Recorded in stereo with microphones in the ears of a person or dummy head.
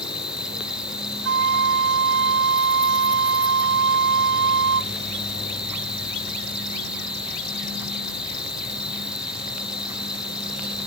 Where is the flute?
75° right (ahead or behind).